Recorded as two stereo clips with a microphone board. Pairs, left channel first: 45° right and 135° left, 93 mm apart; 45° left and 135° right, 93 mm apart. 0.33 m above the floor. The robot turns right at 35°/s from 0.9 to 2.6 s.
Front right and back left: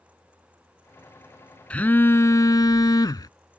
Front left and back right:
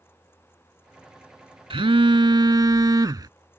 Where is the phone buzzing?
120° right; by 3.3 s 90° right.